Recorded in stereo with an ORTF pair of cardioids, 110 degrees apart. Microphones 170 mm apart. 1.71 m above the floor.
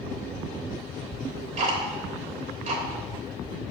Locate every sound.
1.1 s ticking: 40° right, 3.5 m